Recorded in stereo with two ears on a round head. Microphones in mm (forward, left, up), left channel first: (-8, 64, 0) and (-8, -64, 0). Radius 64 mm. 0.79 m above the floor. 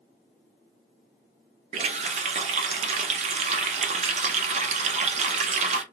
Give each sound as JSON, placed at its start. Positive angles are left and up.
{"t": 1.7, "sound": "a running tap", "side_deg": -45, "distance_m": 0.6}